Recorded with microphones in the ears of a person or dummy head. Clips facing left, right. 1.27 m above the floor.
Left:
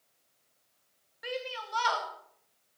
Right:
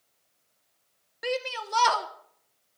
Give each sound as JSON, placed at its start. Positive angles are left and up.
{"t": 1.2, "sound": "a shout", "side_deg": -65, "distance_m": 1.0}